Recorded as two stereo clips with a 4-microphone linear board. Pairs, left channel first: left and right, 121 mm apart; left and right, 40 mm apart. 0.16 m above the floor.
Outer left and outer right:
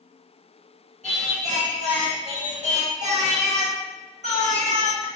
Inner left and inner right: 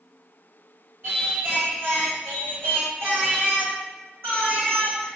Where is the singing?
75° right (ahead or behind), 1.4 m.